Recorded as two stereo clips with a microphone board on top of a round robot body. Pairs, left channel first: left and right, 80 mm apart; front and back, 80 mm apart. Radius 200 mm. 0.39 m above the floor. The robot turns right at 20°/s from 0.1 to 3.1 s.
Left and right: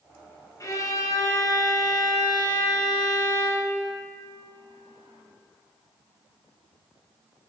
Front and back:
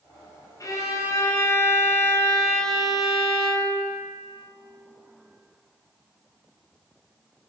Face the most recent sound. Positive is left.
turn(degrees=95)